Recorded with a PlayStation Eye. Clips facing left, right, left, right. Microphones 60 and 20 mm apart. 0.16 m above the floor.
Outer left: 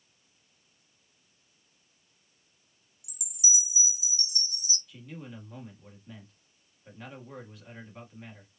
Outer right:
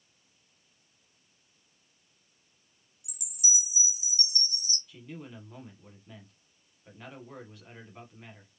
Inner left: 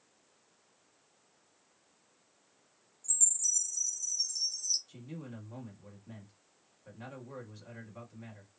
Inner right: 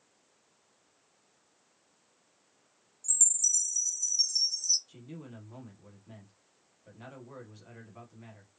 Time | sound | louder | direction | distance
3.0 | a chime | outer left 1 dB, inner right 3 dB | 50° right (ahead or behind) | 1.4 m
4.9 | a man speaking | even, inner left 1 dB | centre (ahead or behind) | 1.0 m